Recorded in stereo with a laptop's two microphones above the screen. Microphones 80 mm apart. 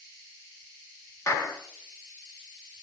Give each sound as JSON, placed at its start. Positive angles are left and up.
{"t": 1.3, "sound": "a clap", "side_deg": 35, "distance_m": 0.9}